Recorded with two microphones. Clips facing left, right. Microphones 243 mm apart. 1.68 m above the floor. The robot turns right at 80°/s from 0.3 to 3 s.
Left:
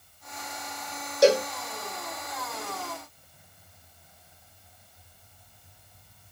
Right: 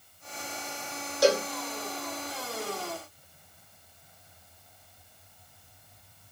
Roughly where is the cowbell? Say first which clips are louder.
Left 4 dB; left.